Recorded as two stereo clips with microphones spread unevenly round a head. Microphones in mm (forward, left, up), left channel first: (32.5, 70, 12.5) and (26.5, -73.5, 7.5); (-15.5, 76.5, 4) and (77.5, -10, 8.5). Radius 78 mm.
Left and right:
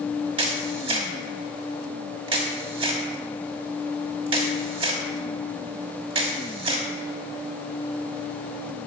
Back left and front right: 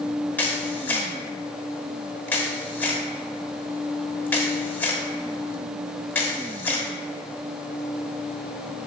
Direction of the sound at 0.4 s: 145° right.